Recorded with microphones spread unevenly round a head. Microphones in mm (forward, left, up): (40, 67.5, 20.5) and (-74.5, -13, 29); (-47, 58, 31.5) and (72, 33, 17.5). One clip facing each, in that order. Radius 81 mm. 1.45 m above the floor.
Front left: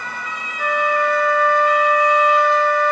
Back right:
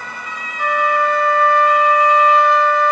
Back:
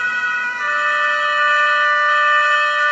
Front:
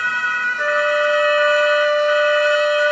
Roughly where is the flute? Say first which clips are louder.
Back right 2 dB, front 6 dB; ahead right.